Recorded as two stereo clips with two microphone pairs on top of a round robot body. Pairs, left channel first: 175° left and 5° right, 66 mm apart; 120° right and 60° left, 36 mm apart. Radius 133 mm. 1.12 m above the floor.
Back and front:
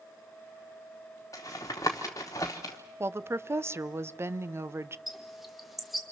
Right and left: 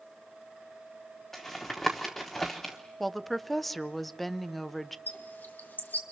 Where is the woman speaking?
45° right, 0.8 m.